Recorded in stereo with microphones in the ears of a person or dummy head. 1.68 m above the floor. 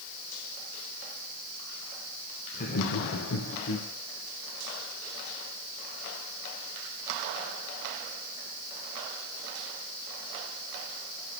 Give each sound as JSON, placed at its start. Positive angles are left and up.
{"t": 2.5, "sound": "laughter", "side_deg": 40, "distance_m": 1.2}